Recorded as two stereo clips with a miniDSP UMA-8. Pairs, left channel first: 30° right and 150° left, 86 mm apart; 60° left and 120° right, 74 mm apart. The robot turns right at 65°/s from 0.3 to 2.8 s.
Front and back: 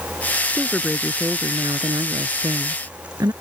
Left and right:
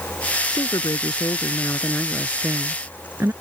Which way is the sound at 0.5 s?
40° left.